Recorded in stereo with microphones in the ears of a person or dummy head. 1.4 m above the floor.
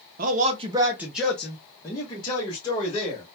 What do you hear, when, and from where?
0.2 s a man speaking: 45° right (ahead or behind), 0.5 m; by 3.2 s 25° left (ahead or behind), 1.4 m